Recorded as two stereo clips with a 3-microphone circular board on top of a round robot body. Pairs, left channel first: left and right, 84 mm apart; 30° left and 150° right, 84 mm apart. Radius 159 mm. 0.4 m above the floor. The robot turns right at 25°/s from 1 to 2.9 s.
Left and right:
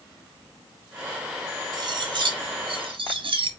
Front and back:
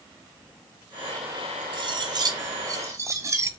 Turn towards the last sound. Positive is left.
turn(degrees=-95)